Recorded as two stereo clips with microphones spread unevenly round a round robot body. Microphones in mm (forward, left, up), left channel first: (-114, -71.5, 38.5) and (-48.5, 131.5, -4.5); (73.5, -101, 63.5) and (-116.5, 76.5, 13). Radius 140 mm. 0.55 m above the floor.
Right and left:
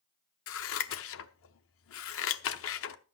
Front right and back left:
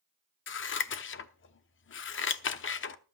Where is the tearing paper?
I don't hear tearing paper.